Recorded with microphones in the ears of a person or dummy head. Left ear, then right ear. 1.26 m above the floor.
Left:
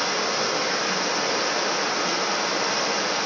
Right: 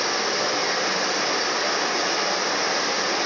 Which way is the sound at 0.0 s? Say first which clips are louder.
Right 1 dB; 15° right (ahead or behind).